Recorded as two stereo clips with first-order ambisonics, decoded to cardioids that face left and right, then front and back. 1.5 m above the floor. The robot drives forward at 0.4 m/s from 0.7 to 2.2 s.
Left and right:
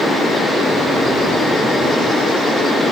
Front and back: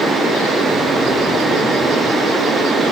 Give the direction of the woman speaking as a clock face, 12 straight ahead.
I don't hear a woman speaking.